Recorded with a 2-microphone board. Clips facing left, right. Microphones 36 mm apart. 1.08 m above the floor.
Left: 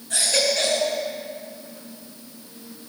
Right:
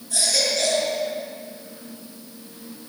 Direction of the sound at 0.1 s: 50° left (ahead or behind).